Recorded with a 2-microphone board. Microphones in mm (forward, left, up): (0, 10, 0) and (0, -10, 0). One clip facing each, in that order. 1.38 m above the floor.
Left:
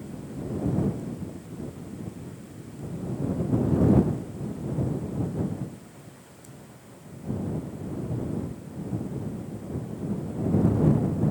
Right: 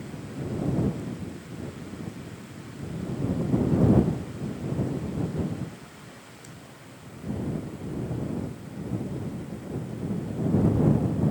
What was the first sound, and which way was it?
Only background noise.